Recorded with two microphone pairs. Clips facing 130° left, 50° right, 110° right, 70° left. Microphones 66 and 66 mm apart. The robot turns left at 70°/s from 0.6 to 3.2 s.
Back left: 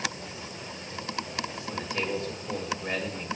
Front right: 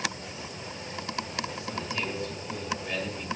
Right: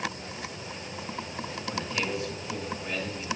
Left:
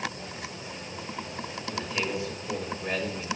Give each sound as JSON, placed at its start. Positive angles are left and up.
{"t": 1.7, "sound": "a man speaking", "azimuth_deg": 165, "distance_m": 1.4}